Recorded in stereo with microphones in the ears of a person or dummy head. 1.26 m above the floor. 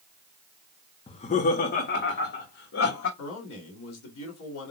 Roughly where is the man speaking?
Left.